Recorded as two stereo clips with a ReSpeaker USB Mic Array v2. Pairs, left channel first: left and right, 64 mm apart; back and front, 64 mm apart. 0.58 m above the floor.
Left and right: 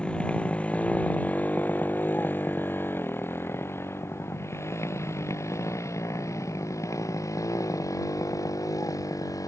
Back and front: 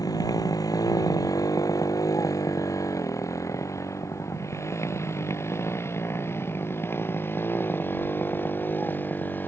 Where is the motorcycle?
165° left; by 9.5 s 120° left.